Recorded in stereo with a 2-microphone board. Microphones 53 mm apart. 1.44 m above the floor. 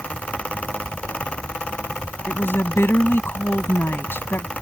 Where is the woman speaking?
45° left (ahead or behind).